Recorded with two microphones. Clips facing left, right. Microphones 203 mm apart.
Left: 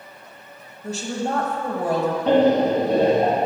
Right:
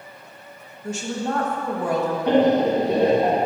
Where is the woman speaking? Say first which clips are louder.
Even; 35° left (ahead or behind), 1.2 m.